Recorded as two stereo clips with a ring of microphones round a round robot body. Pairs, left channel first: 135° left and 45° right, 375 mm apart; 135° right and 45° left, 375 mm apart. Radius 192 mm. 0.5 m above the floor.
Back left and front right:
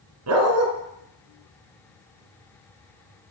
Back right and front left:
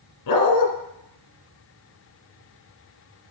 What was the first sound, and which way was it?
A dog barking, 95° right.